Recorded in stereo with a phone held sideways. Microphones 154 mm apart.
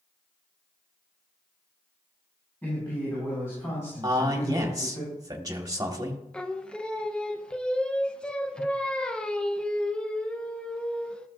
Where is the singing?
5° left (ahead or behind), 0.6 m.